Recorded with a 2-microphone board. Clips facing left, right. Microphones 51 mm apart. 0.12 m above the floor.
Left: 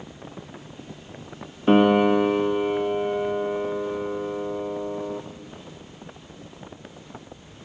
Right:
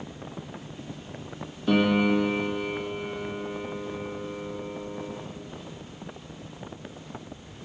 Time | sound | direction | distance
1.7 | a piano | 35° left (ahead or behind) | 1.8 m